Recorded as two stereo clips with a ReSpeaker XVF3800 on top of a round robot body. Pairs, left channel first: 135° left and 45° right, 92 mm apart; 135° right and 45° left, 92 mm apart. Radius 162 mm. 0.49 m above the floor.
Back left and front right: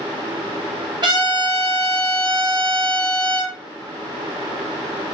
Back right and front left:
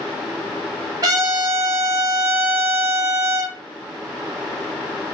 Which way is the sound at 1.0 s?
5° right.